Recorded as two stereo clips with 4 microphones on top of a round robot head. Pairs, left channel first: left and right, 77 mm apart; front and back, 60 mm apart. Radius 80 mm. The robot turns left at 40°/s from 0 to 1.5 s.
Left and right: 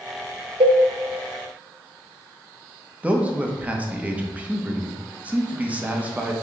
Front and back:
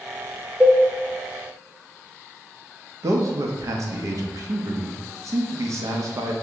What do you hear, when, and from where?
0.6 s a cowbell: 95° right, 0.5 m; by 0.8 s 105° right, 0.5 m
3.0 s a man speaking: 160° right, 0.8 m